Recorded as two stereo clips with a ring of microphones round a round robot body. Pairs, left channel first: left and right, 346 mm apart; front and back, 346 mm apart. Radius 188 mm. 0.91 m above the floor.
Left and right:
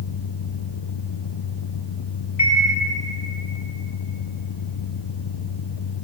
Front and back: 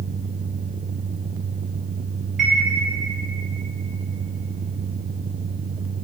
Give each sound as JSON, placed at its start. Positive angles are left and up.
{"t": 2.4, "sound": "a chime", "azimuth_deg": 90, "distance_m": 2.0}